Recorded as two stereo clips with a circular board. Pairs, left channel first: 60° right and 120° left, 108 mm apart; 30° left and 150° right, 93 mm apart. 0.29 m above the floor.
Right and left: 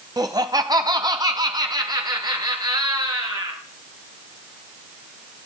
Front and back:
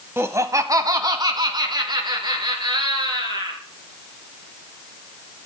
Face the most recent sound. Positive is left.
turn(degrees=170)